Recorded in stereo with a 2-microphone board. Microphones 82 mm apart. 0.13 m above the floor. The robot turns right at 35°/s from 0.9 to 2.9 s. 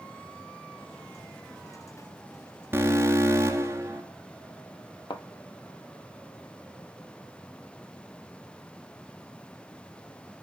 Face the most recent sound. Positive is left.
turn(degrees=75)  # may be behind; listen again after turning